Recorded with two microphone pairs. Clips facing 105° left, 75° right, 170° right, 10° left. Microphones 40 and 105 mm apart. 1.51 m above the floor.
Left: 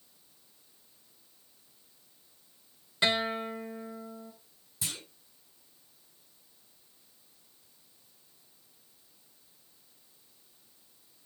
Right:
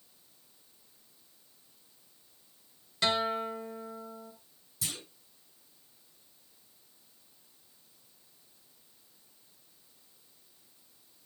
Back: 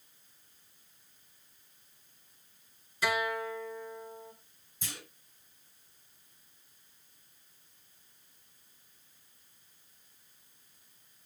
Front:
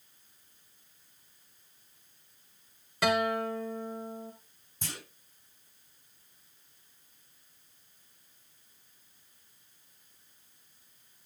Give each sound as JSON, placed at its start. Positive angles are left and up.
{"t": 3.0, "sound": "a guitar", "azimuth_deg": 35, "distance_m": 1.6}
{"t": 4.8, "sound": "a clunk", "azimuth_deg": 35, "distance_m": 8.5}